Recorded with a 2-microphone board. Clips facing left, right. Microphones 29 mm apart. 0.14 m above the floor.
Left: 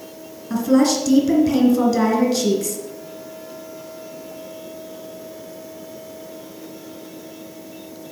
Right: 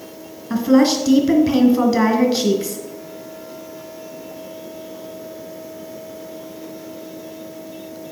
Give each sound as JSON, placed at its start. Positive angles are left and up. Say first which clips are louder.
{"t": 0.5, "sound": "a woman speaking", "louder": "right 2 dB", "side_deg": -25, "distance_m": 1.8}